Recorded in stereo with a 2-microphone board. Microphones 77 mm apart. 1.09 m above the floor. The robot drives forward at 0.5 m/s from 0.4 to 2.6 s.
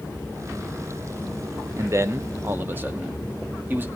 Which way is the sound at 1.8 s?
40° right (ahead or behind).